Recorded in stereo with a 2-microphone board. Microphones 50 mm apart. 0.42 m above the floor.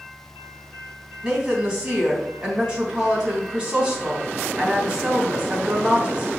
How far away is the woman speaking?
About 3 m.